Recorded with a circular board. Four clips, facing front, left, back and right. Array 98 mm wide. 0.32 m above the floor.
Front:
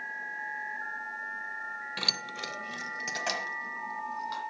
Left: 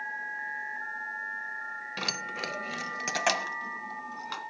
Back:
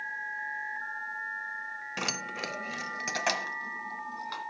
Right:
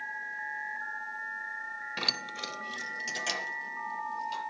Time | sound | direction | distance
2.0 | keys jangling | straight behind | 0.5 m